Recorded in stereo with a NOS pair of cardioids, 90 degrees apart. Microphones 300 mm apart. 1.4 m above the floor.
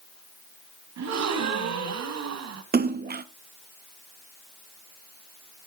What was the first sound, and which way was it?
A gasp, 60° right.